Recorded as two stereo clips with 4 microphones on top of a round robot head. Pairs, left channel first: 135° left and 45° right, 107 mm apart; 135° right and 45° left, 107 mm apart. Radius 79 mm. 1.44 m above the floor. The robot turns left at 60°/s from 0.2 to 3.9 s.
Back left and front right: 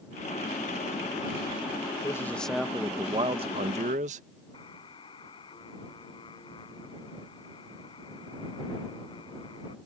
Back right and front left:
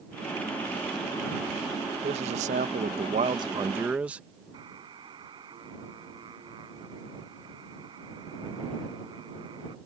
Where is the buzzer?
90° left.